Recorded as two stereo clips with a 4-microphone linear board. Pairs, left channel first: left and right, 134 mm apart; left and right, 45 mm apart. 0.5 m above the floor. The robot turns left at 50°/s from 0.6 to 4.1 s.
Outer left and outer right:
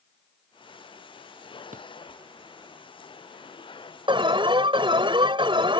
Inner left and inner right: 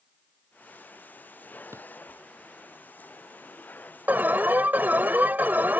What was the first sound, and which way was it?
A drawer, 85° right.